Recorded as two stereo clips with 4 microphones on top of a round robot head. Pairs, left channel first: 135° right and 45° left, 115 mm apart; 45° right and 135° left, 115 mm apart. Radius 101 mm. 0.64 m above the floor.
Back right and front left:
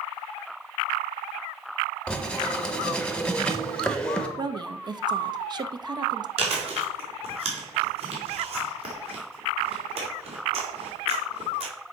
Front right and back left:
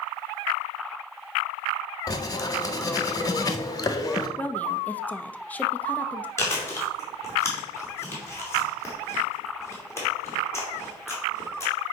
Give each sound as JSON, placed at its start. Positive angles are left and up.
{"t": 2.1, "sound": "writing", "azimuth_deg": -60, "distance_m": 1.1}
{"t": 4.4, "sound": "a woman speaking", "azimuth_deg": 25, "distance_m": 0.7}
{"t": 6.4, "sound": "chewing", "azimuth_deg": 20, "distance_m": 2.5}